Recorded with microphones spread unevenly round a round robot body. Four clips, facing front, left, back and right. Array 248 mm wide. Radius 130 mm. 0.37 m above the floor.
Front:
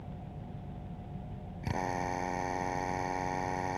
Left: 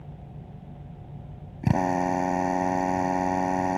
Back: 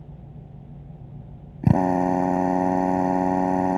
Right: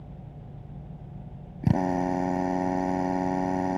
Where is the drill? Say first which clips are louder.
Left 1 dB, back 14 dB; 175° right.